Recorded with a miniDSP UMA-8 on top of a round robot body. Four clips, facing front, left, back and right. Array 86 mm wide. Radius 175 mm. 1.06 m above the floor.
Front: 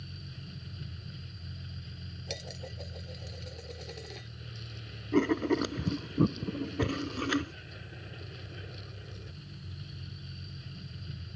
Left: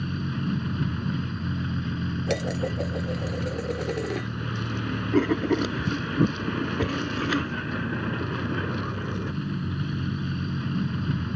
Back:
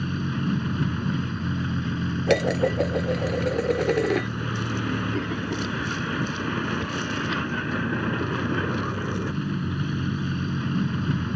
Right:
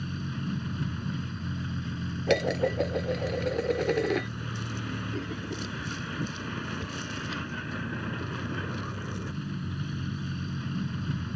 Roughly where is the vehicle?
Behind.